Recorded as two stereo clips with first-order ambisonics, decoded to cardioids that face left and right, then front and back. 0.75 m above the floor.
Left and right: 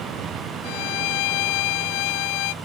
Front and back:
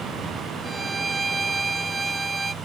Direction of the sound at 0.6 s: 100° left.